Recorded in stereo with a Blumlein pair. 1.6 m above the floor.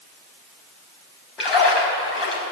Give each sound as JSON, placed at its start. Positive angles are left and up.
{"t": 1.4, "sound": "a splash", "azimuth_deg": 20, "distance_m": 5.0}